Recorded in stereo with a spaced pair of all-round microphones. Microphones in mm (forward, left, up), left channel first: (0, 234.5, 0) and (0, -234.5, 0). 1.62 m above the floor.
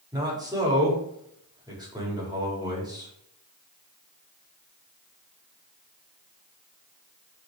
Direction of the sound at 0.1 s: 10° right (ahead or behind).